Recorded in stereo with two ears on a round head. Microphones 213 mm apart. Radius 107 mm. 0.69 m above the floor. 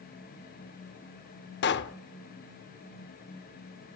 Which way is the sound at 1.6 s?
50° left (ahead or behind).